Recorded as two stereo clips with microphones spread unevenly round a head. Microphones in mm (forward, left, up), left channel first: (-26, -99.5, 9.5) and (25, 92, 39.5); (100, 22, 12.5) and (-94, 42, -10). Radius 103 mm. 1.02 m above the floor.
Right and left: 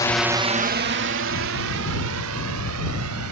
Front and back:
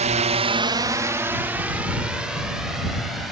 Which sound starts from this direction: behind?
A drone, at 0.0 s.